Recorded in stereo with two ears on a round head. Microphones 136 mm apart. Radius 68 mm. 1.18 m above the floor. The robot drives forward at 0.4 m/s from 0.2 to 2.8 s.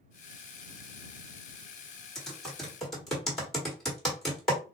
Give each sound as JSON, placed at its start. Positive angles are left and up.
{"t": 2.1, "sound": "typing on a keyboard", "side_deg": 5, "distance_m": 1.1}